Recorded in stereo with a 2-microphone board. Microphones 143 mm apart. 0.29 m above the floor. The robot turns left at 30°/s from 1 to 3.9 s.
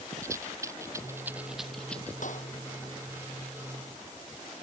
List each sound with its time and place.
0.2 s a rattle: 20° right (ahead or behind); by 2.1 s 15° left (ahead or behind)
2.2 s a clap: 65° left (ahead or behind); by 2.5 s 55° left (ahead or behind)